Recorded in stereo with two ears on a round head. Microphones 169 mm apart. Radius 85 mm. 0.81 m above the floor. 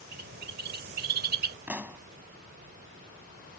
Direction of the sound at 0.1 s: 55° right (ahead or behind).